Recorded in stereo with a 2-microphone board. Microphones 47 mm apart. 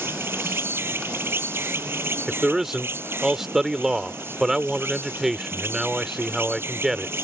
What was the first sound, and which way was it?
An insect, 55° right (ahead or behind).